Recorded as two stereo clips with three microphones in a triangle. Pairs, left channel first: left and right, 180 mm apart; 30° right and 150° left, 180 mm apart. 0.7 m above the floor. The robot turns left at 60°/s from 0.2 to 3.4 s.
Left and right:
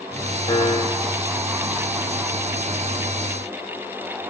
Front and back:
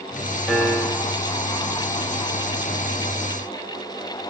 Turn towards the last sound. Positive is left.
turn(degrees=-120)